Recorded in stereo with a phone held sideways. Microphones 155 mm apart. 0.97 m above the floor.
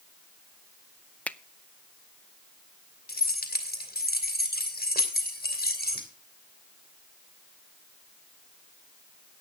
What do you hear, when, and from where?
1.3 s a finger snap: 10° left (ahead or behind), 0.6 m
3.1 s keys jangling: 80° left, 2.5 m